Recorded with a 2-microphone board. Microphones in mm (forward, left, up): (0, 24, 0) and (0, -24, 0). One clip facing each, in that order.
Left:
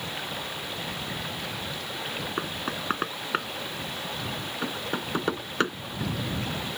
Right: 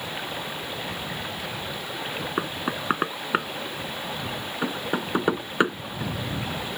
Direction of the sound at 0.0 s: 10° right (ahead or behind).